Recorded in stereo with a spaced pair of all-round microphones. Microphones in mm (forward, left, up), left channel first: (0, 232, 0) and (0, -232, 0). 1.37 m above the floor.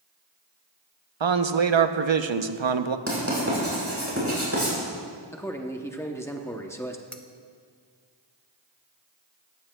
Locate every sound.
1.2 s a man speaking: 70° right (ahead or behind), 0.7 m
3.1 s writing: 30° right (ahead or behind), 5 m
5.3 s a man speaking: 5° left (ahead or behind), 0.7 m
7.1 s cutlery clinking: 5° left (ahead or behind), 0.7 m